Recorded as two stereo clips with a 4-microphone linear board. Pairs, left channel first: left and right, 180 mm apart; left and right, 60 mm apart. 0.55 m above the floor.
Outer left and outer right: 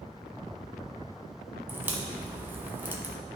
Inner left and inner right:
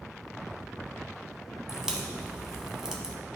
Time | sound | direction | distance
1.7 | a crack | 10° right (ahead or behind) | 1.0 m